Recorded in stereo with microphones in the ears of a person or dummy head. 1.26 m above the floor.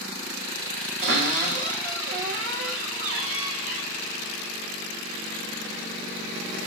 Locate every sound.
1.0 s a cupboard door: 70° right (ahead or behind), 1.8 m